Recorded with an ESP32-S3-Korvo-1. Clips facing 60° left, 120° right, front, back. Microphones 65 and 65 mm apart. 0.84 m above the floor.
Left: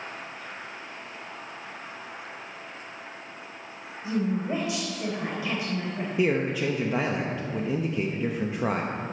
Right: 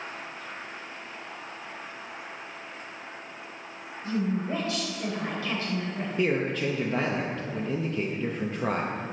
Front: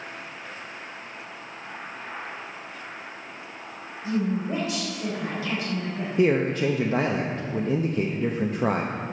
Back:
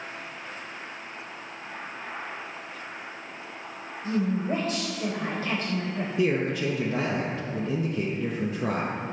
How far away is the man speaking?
About 0.6 m.